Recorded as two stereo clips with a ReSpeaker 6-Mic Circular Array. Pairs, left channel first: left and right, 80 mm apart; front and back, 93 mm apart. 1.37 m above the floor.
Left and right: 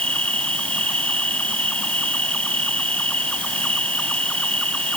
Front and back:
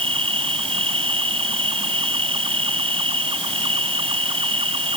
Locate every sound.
0.0 s an insect: 165° left